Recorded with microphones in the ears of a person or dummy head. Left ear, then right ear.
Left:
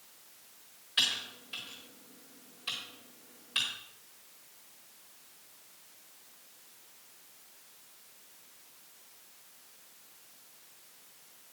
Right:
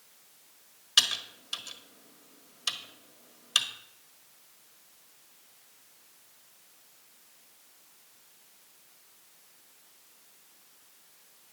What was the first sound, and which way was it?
Typing on a keyboard, 60° right (ahead or behind).